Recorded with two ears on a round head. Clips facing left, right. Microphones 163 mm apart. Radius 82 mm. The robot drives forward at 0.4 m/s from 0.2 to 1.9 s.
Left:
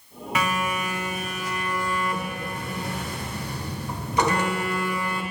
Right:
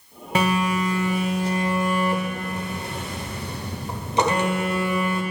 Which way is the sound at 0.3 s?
30° right (ahead or behind).